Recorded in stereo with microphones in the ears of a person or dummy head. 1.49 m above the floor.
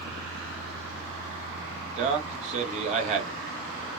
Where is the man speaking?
35° right (ahead or behind), 1.3 m.